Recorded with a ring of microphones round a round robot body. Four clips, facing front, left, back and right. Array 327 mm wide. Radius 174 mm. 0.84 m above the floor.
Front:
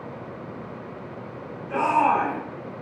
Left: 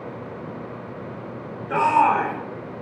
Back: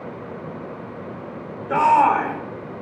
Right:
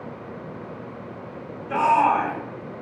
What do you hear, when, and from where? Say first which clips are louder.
1.7 s a shout: left 1 dB, back 5 dB; 170° left, 3 m